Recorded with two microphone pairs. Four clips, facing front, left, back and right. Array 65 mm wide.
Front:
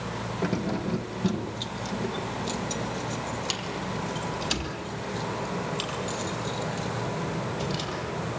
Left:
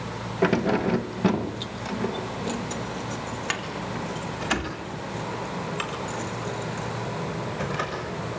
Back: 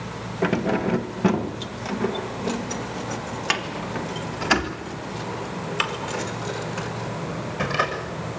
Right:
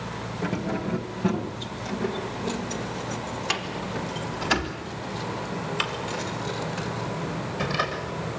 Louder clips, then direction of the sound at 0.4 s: Left 7 dB, back 8 dB; 125° left.